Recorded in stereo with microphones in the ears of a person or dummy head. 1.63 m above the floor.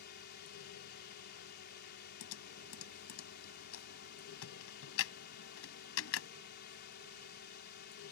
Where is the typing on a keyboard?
80° left.